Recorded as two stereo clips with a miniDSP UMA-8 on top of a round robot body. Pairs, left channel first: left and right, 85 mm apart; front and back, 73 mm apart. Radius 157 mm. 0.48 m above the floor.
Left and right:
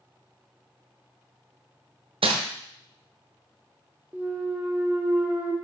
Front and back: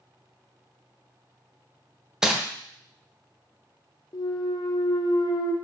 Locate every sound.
2.2 s crumpling: 95° right, 1.0 m
4.1 s a clunk: 20° right, 1.0 m